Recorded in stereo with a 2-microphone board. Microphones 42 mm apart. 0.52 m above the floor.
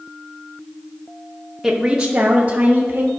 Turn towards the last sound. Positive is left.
turn(degrees=-50)  # may be behind; listen again after turning